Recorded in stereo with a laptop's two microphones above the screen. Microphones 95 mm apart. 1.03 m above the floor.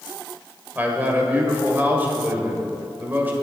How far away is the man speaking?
About 4 m.